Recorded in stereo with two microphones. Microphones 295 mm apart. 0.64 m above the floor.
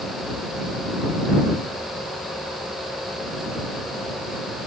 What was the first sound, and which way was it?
Only background noise.